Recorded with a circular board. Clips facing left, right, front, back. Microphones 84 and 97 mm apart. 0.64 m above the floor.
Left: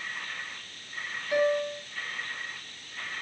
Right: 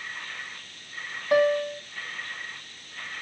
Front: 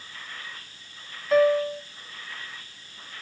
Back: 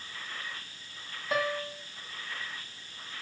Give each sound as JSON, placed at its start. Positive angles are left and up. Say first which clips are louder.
{"t": 1.3, "sound": "a piano", "louder": "right 4 dB, front 12 dB", "azimuth_deg": -95, "distance_m": 1.0}